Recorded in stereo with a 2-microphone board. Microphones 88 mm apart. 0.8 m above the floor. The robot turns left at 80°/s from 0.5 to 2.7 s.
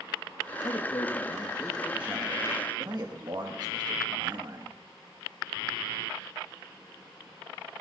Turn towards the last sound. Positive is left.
turn(degrees=-75)